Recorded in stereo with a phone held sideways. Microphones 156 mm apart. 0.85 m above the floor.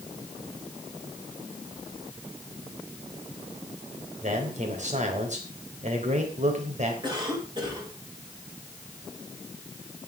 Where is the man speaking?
50° right (ahead or behind), 3.5 m.